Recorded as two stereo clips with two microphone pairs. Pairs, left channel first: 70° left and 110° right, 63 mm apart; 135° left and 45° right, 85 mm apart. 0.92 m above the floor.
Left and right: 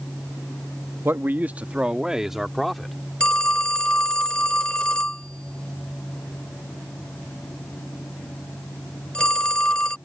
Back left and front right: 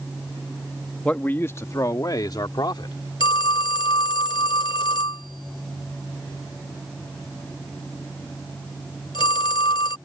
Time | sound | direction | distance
1.1 | a man speaking | 150° right | ?
3.2 | a phone ringing | 145° left | ?